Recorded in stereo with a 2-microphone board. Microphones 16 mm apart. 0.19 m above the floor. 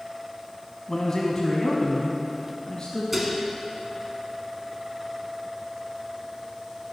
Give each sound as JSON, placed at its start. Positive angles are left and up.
{"t": 0.9, "sound": "a man speaking", "side_deg": 25, "distance_m": 1.1}
{"t": 3.1, "sound": "dishes clattering", "side_deg": -5, "distance_m": 1.3}